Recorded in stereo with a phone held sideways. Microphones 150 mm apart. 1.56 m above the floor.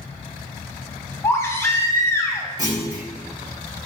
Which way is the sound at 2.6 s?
25° right (ahead or behind).